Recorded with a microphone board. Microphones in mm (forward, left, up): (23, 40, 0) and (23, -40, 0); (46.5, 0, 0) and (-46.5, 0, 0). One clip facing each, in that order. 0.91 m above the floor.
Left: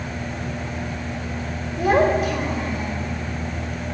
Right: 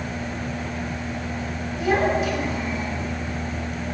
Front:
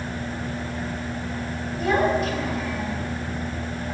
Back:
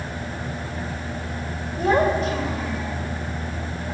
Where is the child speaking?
130° left, 3 m; by 2.9 s 120° left, 3 m.